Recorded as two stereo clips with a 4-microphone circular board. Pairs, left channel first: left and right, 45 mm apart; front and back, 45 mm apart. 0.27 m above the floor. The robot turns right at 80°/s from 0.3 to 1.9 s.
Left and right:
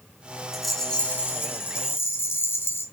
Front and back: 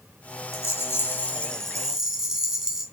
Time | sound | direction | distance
0.5 | a rattle | 10° right | 2.5 m